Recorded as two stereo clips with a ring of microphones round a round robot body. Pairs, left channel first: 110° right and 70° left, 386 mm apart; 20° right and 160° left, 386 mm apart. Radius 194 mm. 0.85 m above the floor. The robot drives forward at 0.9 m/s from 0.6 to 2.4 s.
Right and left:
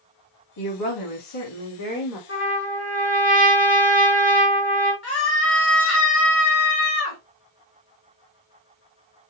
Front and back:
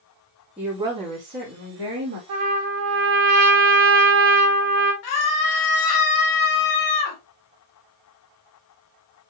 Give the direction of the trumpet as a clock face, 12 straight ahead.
6 o'clock.